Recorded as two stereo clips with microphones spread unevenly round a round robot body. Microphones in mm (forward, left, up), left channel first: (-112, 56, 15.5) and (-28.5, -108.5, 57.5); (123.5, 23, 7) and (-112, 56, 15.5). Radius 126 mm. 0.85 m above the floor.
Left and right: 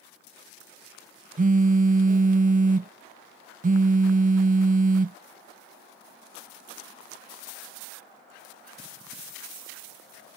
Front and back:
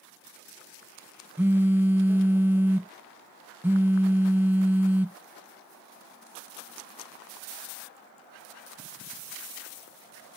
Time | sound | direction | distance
1.4 | a phone buzzing | 105° right | ?